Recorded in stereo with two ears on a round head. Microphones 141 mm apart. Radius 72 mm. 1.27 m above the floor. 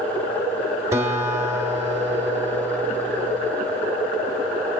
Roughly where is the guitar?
Centre.